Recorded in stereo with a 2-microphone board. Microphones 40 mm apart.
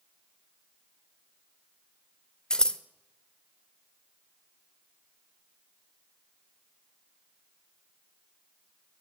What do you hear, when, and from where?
2.5 s scissors: 20° left (ahead or behind), 0.6 m